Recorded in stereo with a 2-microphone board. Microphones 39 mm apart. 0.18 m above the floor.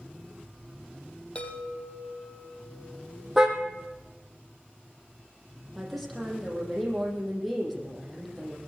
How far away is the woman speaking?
About 6.5 m.